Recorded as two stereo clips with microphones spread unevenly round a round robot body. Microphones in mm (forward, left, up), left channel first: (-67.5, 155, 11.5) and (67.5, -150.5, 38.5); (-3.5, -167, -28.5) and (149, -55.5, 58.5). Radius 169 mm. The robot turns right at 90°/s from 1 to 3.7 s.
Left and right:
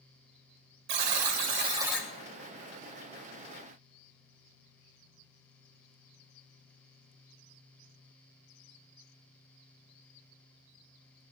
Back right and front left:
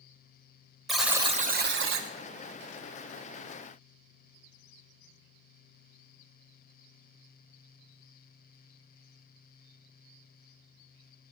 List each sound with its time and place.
0.9 s a buzzer: 60° right, 2 m; by 2.1 s 40° left, 2 m